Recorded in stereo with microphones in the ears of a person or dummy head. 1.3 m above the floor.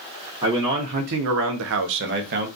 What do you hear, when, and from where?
0.4 s a man speaking: 25° right (ahead or behind), 0.8 m; by 2.5 s 50° right (ahead or behind), 0.8 m